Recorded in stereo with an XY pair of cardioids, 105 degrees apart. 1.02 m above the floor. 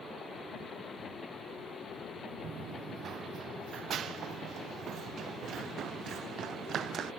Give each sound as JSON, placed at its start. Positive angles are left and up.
{"t": 2.4, "sound": "running footsteps", "azimuth_deg": -55}